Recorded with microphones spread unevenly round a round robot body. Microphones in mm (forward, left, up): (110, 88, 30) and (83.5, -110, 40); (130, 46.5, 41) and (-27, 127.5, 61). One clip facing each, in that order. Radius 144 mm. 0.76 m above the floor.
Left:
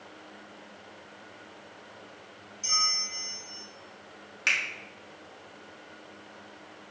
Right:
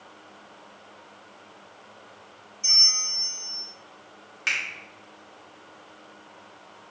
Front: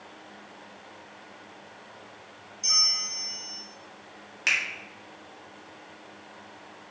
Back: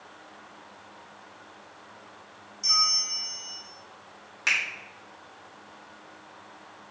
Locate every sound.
2.6 s a bell: 45° left, 2 m
4.5 s a finger snap: 35° left, 1.8 m